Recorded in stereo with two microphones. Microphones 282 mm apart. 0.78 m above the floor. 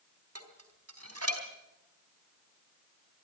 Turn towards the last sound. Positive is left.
turn(degrees=-55)  # may be behind; listen again after turning